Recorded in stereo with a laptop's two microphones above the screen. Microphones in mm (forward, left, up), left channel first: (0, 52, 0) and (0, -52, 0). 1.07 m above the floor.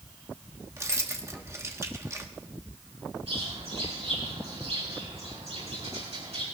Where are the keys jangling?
30° right (ahead or behind), 0.9 m.